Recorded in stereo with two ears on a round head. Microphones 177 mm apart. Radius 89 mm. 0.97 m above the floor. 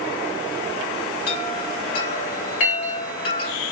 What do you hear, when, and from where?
1.3 s a chime: 45° left (ahead or behind), 1.6 m